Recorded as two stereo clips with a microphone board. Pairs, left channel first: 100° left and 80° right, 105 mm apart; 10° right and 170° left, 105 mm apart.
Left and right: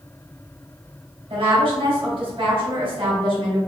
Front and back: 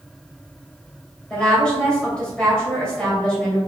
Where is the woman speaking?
90° right, 1.9 m.